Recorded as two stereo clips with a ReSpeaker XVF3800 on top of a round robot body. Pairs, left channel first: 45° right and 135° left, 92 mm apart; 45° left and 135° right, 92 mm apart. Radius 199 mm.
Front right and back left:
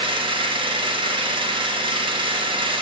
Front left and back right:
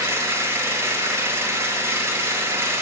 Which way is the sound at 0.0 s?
165° left.